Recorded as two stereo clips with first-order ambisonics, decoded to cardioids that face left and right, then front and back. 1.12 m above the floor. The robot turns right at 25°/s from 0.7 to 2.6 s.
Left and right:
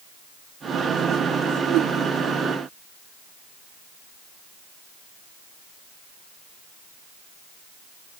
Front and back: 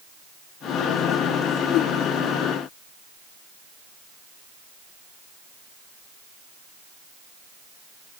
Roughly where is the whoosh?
Ahead right.